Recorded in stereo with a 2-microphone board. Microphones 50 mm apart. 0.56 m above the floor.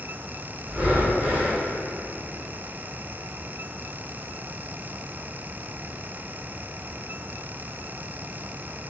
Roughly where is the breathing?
Right.